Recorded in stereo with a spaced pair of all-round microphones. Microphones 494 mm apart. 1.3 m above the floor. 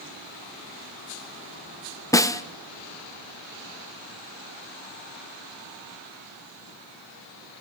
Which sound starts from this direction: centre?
A snare drum, at 2.1 s.